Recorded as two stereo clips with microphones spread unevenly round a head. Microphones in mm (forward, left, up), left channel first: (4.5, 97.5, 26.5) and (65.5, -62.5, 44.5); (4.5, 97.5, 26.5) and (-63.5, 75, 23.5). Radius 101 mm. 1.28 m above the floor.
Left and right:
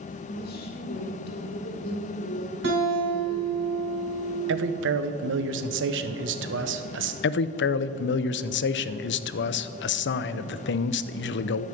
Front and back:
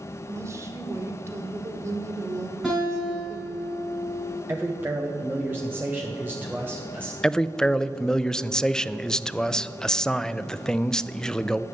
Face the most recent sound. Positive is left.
turn(degrees=100)